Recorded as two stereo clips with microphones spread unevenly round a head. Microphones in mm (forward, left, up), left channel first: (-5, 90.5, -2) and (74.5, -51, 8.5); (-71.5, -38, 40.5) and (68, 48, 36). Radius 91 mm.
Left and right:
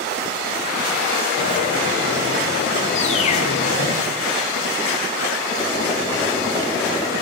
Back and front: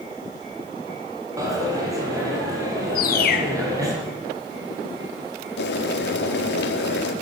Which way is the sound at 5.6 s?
165° right.